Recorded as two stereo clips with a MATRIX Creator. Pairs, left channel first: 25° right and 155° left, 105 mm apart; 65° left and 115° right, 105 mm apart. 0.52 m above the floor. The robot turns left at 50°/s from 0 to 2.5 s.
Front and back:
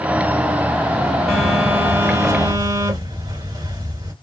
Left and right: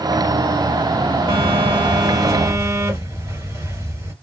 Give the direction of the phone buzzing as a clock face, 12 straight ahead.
4 o'clock.